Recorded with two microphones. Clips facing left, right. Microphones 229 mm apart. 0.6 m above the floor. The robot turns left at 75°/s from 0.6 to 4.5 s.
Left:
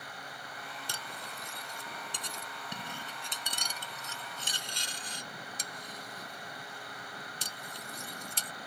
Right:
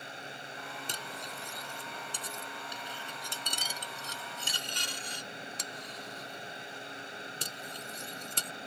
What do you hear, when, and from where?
0.9 s cutlery clinking: 20° right (ahead or behind); by 8.5 s 70° right (ahead or behind)